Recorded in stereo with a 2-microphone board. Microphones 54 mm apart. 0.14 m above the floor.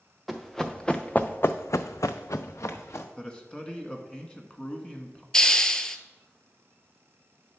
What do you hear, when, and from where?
0.3 s running footsteps: centre (ahead or behind), 1.1 m; by 3.1 s 55° left (ahead or behind), 1.1 m
3.2 s a man speaking: 20° left (ahead or behind), 1.1 m
5.3 s a hiss: 15° left (ahead or behind), 0.5 m